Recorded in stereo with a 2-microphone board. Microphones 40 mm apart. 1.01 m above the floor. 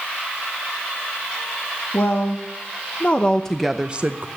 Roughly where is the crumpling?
I don't hear crumpling.